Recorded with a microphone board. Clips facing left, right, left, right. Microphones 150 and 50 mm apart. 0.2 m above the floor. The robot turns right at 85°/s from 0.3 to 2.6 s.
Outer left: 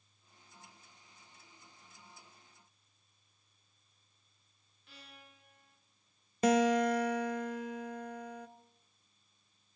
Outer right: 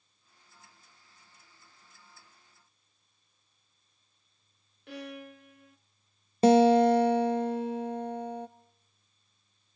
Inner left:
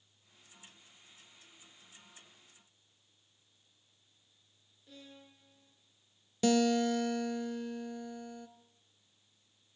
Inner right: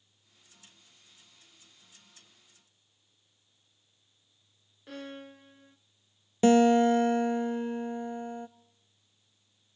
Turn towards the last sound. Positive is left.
turn(degrees=-30)  # may be behind; listen again after turning